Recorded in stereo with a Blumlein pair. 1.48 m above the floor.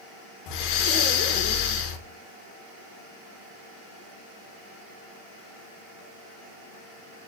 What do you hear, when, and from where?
0.5 s breathing: 45° left, 1.0 m